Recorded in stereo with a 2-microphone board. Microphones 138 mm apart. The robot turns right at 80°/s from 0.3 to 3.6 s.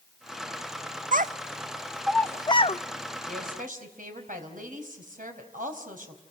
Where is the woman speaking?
70° right (ahead or behind), 4 m; by 6.2 s 75° right (ahead or behind), 4 m.